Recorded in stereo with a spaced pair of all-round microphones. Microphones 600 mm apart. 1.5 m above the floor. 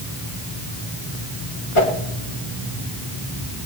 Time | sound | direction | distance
1.8 | a whoosh | 55° left (ahead or behind) | 1.9 m